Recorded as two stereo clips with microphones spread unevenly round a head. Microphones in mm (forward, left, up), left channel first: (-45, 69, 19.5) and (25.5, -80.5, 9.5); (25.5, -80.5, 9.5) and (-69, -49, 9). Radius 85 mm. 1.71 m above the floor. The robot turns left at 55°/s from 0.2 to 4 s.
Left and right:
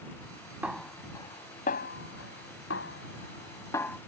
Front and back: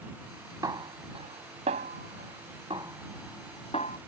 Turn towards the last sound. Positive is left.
turn(degrees=30)